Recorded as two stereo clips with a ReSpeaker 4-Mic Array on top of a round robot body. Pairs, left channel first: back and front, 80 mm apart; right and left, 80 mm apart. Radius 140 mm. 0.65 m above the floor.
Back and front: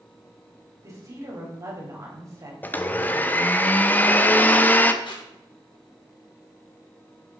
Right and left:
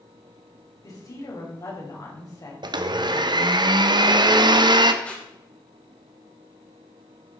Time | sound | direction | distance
0.8 | a woman speaking | 50° right | 4.5 m
2.6 | a blender | 110° left | 1.0 m
5.0 | tape being pulled | 165° right | 2.5 m